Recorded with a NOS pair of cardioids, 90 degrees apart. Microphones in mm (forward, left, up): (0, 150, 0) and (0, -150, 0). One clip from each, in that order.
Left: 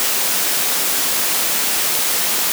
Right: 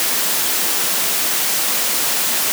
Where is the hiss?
No hiss in this recording.